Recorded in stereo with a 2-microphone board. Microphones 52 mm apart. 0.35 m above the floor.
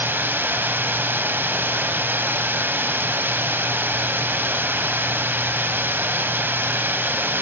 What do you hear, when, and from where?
0.0 s running water: 40° right (ahead or behind), 2.0 m